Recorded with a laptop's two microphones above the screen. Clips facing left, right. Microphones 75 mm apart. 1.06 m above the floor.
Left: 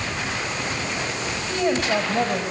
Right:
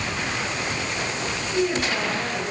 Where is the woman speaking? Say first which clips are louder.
Left 2 dB; 65° left (ahead or behind), 6.5 m.